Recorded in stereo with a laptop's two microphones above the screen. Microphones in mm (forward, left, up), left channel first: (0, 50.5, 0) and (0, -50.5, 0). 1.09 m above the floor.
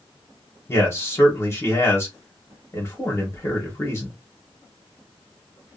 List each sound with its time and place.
0.7 s a man speaking: 25° left (ahead or behind), 1.0 m